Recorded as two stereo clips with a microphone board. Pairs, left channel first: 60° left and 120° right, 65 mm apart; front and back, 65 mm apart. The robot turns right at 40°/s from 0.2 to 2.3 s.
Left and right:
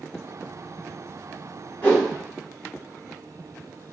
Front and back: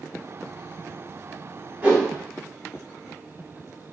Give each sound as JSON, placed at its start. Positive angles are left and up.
{"t": 1.8, "sound": "a whoosh", "azimuth_deg": 120, "distance_m": 1.4}